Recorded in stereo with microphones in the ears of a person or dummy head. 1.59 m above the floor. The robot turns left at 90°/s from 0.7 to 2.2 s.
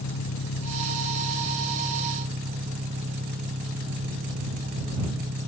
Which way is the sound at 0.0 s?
90° left.